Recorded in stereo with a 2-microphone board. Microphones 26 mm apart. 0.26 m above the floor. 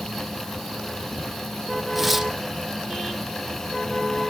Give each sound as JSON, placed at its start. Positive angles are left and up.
{"t": 1.9, "sound": "tearing paper", "side_deg": 0, "distance_m": 1.4}